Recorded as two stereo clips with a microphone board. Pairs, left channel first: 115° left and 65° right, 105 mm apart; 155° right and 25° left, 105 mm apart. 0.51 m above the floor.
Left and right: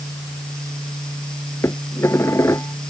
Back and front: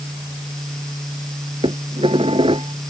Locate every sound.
1.6 s dishes clattering: 50° left